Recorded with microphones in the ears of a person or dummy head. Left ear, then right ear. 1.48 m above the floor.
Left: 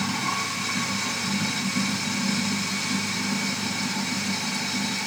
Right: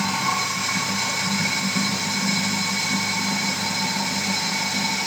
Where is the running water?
30° right (ahead or behind), 1.2 m.